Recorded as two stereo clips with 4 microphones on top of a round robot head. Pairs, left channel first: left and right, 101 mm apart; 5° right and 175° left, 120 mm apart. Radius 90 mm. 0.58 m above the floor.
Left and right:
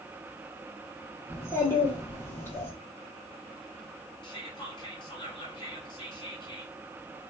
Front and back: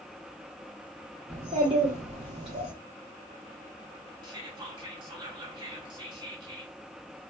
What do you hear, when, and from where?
1.3 s a child speaking: 150° left, 1.1 m
4.2 s whispering: 125° left, 1.7 m